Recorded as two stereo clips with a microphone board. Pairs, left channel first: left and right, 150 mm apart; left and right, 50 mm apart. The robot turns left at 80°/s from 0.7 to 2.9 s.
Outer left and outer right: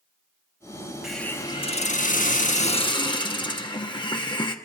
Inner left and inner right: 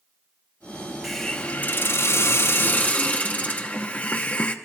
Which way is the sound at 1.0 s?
175° right.